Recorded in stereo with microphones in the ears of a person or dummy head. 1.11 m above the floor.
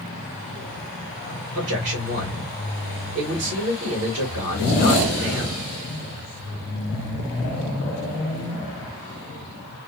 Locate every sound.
1.6 s a man speaking: 65° right (ahead or behind), 1.8 m